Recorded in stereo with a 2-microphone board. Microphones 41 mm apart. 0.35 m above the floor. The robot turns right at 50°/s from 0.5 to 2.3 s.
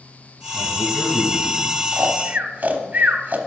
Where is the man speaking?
95° left, 3 m; by 2.0 s 170° left, 3 m.